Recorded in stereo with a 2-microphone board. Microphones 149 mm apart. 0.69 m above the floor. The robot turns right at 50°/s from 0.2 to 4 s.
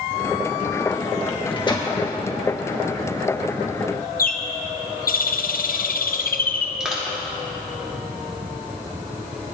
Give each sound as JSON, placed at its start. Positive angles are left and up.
{"t": 1.3, "sound": "a microwave", "side_deg": 40, "distance_m": 1.0}
{"t": 4.2, "sound": "a bird", "side_deg": 70, "distance_m": 0.6}
{"t": 6.8, "sound": "crushing", "side_deg": -5, "distance_m": 1.8}